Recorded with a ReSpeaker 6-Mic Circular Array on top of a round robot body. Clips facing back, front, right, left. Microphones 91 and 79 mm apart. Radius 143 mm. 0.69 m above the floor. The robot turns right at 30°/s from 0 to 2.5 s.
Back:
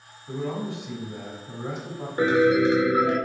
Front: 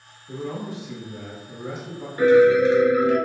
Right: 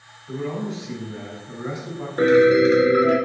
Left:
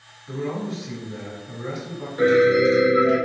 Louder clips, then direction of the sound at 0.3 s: Back 1 dB, even; 160° left.